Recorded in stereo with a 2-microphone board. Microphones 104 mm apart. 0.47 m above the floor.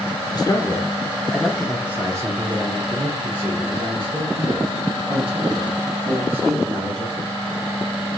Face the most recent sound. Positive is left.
turn(degrees=-70)  # may be behind; listen again after turning